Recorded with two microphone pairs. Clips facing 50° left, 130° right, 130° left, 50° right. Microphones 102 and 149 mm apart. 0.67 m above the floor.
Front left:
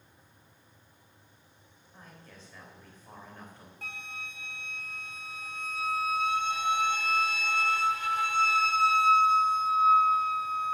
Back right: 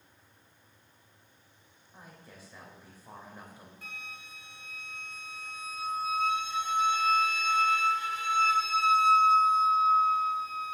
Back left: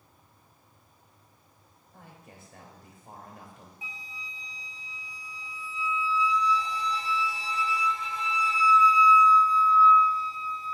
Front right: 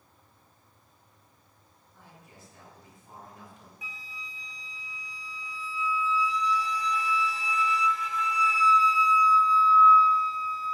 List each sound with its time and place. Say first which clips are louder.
1.9 s a man speaking: even, back left 3 dB; 150° left, 3 m
3.8 s a flute: front left 5 dB, front right 1 dB; 70° left, 1.0 m